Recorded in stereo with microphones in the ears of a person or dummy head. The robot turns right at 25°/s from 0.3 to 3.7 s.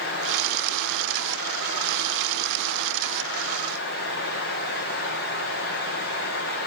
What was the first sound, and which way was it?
Only background noise.